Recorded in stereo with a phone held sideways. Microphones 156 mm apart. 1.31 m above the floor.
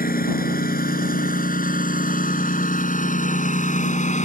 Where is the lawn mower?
70° left (ahead or behind); by 4.2 s 55° left (ahead or behind).